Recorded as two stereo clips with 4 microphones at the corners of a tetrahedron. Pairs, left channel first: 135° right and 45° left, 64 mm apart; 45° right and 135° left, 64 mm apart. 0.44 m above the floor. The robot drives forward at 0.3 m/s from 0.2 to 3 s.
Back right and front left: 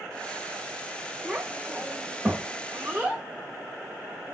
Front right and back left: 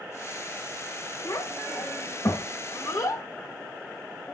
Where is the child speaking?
25° right, 1.6 m; by 3.2 s 35° right, 1.2 m.